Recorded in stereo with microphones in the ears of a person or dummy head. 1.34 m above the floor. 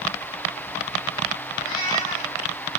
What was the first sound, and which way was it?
A cat meowing, 45° left (ahead or behind).